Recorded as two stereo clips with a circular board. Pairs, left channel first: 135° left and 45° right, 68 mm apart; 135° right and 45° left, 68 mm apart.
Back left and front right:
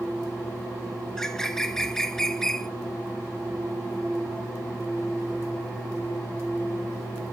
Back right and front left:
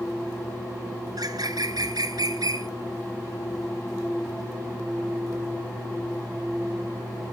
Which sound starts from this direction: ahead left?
A bird, at 1.1 s.